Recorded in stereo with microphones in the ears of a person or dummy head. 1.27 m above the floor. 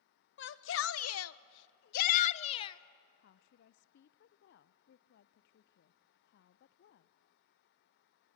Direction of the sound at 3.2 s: 55° left (ahead or behind).